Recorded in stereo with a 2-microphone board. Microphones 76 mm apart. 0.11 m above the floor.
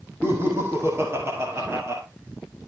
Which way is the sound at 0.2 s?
35° right (ahead or behind).